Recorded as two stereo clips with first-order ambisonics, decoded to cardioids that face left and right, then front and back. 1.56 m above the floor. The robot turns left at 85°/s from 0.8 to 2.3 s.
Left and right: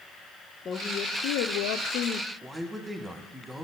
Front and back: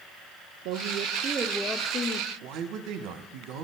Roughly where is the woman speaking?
Behind left.